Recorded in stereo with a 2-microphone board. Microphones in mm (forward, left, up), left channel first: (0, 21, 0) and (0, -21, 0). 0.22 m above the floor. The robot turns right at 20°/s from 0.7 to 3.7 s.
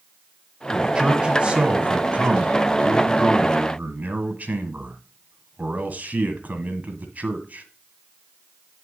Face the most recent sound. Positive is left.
turn(degrees=-90)